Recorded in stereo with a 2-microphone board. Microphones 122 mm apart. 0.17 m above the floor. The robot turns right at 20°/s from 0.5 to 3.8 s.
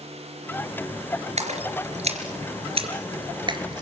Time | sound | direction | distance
1.4 | a splash | 65° right (ahead or behind) | 3.5 m